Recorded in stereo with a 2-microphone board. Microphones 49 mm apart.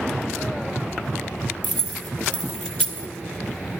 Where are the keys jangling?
25° left (ahead or behind), 0.7 m.